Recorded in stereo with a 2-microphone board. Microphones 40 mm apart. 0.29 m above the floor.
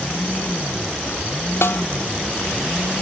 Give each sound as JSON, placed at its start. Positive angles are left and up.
{"t": 1.6, "sound": "a snare drum", "side_deg": 80}